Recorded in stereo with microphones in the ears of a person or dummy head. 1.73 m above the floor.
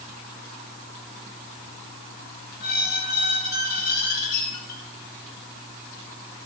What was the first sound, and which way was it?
A squeak, 55° left (ahead or behind).